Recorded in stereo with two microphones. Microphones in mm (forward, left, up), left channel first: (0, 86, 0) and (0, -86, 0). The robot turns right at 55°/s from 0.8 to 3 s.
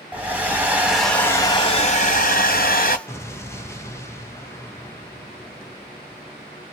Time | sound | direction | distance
0.1 | a hair dryer | 10° right | 1.1 m
3.1 | an explosion | 15° left (ahead or behind) | 0.7 m